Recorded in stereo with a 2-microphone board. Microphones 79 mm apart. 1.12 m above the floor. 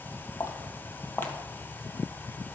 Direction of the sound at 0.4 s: 40° left (ahead or behind).